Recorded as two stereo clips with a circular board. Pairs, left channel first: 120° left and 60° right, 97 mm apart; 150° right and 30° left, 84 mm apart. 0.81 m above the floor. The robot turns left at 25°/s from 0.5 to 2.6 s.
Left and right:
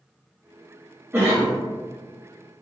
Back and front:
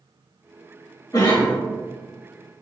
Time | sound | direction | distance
1.1 | a cough | 120° right | 1.2 m